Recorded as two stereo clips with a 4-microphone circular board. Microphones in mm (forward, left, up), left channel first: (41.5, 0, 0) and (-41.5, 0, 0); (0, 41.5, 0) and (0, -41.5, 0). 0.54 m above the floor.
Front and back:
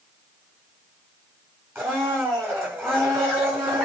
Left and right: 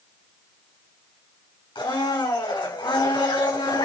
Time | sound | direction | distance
1.8 | a blender | 120° left | 6 m